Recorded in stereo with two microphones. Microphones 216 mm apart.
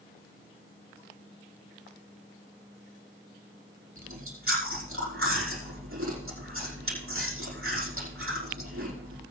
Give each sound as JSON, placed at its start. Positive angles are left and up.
{"t": 4.0, "sound": "chewing", "side_deg": -80, "distance_m": 5.5}